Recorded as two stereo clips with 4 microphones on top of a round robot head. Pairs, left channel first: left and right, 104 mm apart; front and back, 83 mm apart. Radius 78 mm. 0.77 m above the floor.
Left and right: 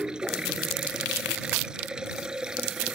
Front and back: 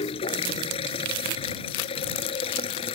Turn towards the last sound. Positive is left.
turn(degrees=-5)